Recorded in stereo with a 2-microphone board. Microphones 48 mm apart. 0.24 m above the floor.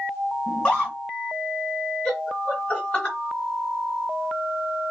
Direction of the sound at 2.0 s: 25° left (ahead or behind).